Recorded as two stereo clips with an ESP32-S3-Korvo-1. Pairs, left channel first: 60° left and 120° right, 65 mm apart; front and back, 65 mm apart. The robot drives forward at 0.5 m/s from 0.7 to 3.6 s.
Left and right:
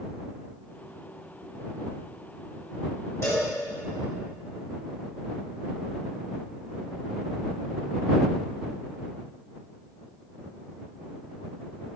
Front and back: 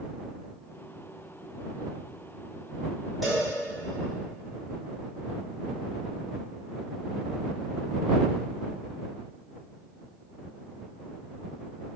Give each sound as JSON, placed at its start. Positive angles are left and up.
{"t": 3.2, "sound": "a cowbell", "azimuth_deg": 90, "distance_m": 2.0}